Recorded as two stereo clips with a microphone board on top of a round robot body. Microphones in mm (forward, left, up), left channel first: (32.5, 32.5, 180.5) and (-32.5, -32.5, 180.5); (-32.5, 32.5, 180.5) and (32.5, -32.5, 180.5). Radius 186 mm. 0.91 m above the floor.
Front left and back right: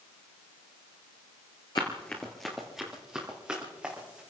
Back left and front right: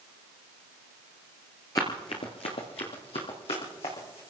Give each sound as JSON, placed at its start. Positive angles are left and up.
{"t": 1.8, "sound": "running footsteps", "azimuth_deg": 85, "distance_m": 0.9}